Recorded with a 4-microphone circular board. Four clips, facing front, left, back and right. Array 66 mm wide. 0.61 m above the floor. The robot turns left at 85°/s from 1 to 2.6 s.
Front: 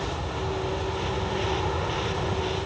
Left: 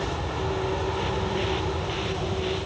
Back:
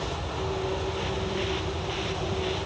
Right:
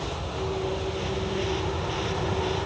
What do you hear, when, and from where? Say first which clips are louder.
0.0 s an aircraft: left 2 dB, front 1 dB; 70° left; by 2.7 s 65° right